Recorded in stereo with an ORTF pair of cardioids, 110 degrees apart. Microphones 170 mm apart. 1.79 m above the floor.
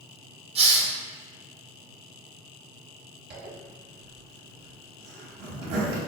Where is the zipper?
70° right, 1.0 m.